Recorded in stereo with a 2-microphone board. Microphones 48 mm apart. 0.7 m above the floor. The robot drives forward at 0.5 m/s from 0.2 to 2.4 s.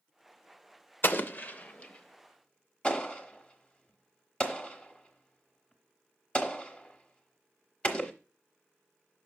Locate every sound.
1.0 s an explosion: 50° left (ahead or behind), 0.5 m; by 8.1 s 25° left (ahead or behind), 1.0 m